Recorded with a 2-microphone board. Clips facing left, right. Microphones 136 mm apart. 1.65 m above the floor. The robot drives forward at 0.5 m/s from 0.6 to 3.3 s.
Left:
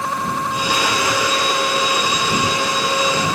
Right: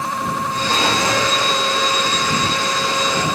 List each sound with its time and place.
0.7 s a drawer: 25° right (ahead or behind), 1.1 m; by 3.4 s 15° right (ahead or behind), 1.7 m